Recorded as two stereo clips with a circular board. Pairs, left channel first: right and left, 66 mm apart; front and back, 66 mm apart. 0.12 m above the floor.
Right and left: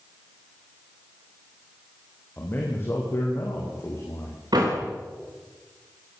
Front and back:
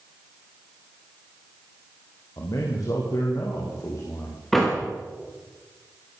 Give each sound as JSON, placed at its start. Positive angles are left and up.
{"t": 2.4, "sound": "a man speaking", "azimuth_deg": -30, "distance_m": 5.0}
{"t": 4.5, "sound": "a door slam", "azimuth_deg": 85, "distance_m": 8.0}